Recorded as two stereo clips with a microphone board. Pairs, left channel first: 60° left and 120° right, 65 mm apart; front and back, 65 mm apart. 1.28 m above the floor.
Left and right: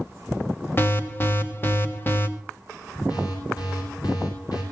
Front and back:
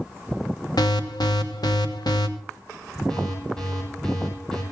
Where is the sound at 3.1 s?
85° left, 9 m.